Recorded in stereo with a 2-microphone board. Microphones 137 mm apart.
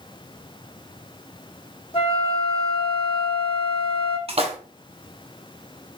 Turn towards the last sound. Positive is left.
turn(degrees=-45)  # may be behind; listen again after turning